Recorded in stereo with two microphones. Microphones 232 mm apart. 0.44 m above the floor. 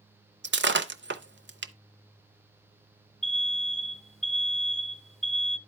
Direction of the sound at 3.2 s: Centre (ahead or behind).